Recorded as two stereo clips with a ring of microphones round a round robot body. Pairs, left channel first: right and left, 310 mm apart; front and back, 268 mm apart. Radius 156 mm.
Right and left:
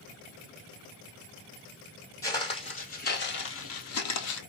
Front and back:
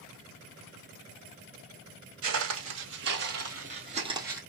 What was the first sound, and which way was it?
Footsteps, 165° right.